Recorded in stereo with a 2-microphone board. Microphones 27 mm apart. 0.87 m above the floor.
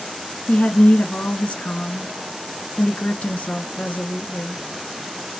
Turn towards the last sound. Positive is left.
turn(degrees=65)  # may be behind; listen again after turning